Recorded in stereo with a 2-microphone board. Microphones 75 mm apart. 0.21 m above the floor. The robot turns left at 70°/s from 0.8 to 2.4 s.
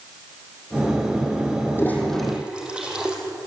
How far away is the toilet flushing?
About 4.5 m.